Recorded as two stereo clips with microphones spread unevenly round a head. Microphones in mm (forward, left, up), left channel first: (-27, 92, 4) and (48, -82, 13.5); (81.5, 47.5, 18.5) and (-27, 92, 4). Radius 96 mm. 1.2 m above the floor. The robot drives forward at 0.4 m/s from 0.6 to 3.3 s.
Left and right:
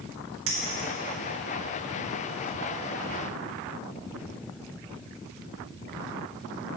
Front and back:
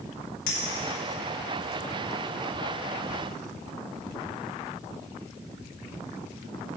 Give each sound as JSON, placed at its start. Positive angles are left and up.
{"t": 0.5, "sound": "a clink", "azimuth_deg": -40, "distance_m": 1.7}